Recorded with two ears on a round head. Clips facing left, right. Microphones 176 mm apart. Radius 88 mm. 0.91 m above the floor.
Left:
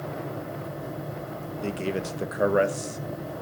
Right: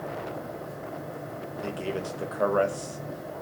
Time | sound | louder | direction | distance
1.6 | a man speaking | left 3 dB | 20° left (ahead or behind) | 1.0 m